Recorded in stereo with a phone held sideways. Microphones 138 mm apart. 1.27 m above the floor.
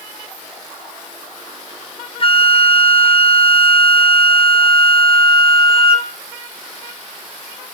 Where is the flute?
40° left (ahead or behind), 0.7 m.